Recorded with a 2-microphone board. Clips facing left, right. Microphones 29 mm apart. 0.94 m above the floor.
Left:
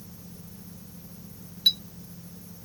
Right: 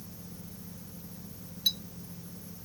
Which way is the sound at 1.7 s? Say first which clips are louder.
Left 7 dB; 45° left (ahead or behind).